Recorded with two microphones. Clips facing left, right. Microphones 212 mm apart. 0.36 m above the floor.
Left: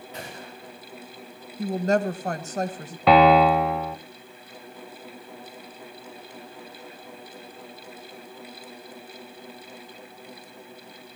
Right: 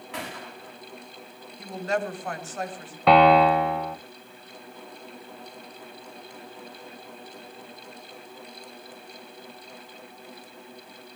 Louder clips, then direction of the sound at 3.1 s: Left 1 dB; centre (ahead or behind).